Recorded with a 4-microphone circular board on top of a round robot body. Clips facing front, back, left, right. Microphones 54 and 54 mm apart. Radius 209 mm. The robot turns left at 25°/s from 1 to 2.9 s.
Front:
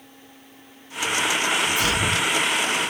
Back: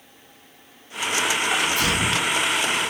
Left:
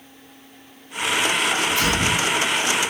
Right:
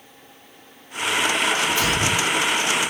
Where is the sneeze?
155° right, 2.5 m; by 2.3 s straight behind, 2.5 m.